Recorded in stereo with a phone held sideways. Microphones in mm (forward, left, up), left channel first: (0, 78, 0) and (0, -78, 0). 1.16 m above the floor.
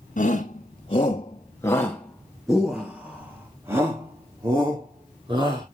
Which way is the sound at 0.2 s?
50° left (ahead or behind).